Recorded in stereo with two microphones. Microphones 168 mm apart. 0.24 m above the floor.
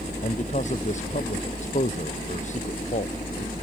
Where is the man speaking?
45° left (ahead or behind).